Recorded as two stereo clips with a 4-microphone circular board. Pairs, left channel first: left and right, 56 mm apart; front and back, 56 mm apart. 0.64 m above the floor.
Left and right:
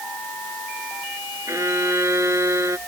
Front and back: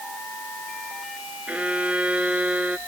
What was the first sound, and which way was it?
A violin, 115° right.